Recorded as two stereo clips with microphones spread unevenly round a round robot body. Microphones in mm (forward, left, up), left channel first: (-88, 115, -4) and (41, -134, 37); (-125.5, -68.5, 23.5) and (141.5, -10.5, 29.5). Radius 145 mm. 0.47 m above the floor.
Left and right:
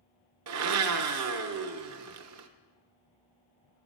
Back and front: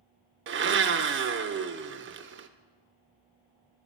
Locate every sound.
0.5 s a blender: 30° right, 0.8 m